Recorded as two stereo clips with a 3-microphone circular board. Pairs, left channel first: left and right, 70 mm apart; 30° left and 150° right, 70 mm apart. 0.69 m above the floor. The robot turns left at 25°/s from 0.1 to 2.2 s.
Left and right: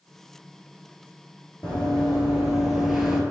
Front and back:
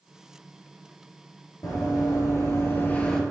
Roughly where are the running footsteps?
Ahead.